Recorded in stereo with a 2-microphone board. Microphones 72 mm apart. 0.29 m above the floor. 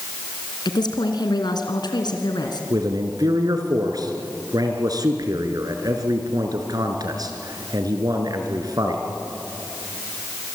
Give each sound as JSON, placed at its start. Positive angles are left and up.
{"t": 0.7, "sound": "a woman speaking", "side_deg": 70, "distance_m": 3.0}
{"t": 2.7, "sound": "a man speaking", "side_deg": -55, "distance_m": 3.5}